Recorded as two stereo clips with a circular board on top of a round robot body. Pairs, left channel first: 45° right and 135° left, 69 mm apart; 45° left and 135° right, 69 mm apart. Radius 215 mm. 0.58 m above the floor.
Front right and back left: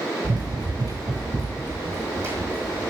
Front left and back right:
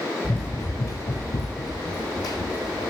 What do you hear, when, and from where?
0.2 s running footsteps: 115° left, 0.8 m; by 2.9 s 75° left, 2.5 m